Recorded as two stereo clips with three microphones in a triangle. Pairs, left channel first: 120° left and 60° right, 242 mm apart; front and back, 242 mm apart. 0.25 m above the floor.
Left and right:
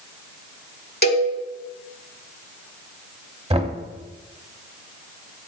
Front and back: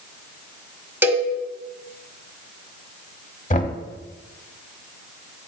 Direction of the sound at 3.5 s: 20° right.